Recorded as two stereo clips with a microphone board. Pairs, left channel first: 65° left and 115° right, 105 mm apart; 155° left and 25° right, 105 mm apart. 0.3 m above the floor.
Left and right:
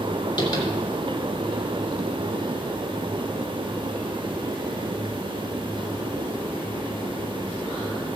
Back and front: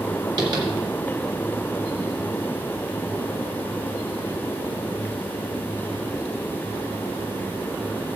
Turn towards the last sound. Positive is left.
turn(degrees=20)